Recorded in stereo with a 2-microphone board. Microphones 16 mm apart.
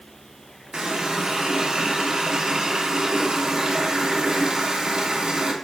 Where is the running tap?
50° right (ahead or behind), 1.1 m.